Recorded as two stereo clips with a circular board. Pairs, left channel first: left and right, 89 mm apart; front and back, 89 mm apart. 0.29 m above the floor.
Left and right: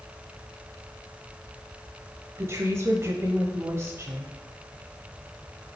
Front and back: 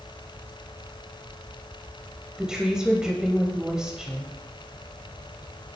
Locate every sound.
2.4 s a woman speaking: 105° right, 1.1 m